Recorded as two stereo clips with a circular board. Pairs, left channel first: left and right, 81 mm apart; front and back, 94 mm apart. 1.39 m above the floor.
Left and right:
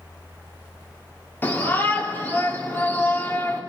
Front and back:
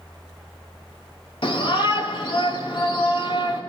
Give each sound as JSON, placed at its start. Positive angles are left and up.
{"t": 1.4, "sound": "a shout", "azimuth_deg": 25, "distance_m": 3.0}